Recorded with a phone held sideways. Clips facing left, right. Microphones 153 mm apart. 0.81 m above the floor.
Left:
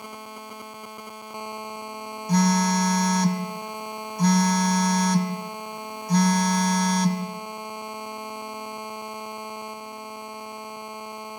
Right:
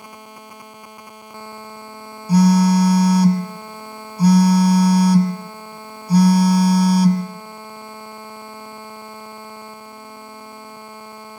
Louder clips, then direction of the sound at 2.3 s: Right 8 dB; 10° right (ahead or behind).